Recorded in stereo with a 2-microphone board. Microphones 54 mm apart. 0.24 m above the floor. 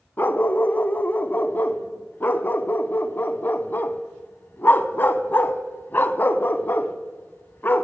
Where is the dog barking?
40° left (ahead or behind), 0.5 m.